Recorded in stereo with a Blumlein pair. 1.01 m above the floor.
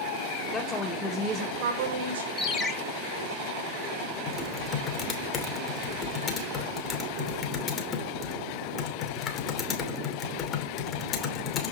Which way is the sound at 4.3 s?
30° left.